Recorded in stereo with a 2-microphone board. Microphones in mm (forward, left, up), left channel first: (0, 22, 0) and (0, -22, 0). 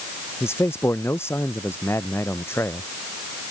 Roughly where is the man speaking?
Left.